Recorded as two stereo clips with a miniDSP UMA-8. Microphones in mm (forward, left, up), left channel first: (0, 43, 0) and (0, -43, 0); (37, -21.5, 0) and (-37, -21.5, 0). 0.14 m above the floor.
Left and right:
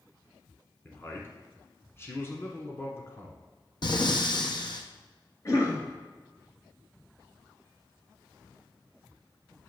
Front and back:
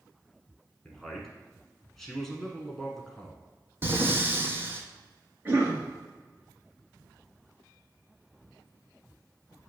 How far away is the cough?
About 2.5 m.